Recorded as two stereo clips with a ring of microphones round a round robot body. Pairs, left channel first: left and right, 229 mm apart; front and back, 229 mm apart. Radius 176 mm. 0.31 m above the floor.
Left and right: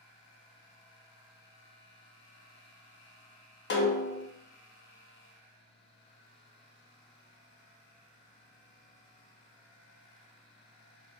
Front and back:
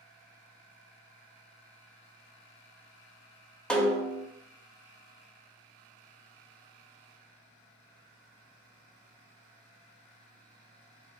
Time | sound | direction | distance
3.7 | a snare drum | 85° left | 0.7 m